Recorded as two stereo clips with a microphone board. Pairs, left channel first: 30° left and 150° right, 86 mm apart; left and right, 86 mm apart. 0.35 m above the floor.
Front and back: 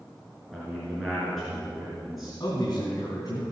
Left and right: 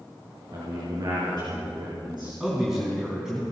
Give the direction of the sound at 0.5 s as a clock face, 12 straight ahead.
2 o'clock.